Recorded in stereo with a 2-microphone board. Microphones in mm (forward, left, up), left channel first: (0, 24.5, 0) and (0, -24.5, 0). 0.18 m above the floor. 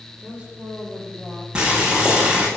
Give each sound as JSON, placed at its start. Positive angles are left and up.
{"t": 0.2, "sound": "a woman speaking", "side_deg": -25, "distance_m": 6.5}
{"t": 1.6, "sound": "boiling", "side_deg": -15, "distance_m": 5.5}